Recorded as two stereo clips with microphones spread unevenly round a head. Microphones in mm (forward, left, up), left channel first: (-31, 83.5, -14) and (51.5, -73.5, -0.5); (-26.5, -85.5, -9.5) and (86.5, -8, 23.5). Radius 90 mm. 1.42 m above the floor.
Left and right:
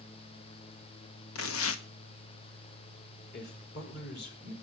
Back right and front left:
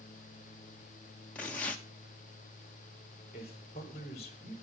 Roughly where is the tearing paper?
Behind left.